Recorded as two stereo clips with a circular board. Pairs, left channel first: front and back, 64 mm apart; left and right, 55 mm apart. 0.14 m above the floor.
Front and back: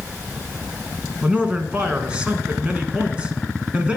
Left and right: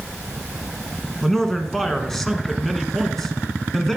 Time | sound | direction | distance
1.2 | a man speaking | 155° left | 1.0 m